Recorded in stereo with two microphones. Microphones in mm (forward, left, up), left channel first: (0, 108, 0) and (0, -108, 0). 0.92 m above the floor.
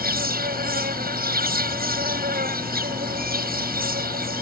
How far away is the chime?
No chime in this recording.